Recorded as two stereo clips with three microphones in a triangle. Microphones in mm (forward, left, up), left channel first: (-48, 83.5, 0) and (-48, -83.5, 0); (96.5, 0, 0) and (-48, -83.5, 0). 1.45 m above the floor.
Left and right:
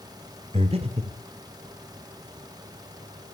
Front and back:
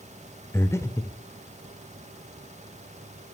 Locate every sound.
0.5 s breathing: 45° right, 2 m